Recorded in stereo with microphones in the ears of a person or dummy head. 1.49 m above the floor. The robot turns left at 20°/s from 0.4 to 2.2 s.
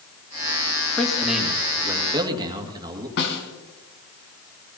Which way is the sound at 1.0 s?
5° left (ahead or behind).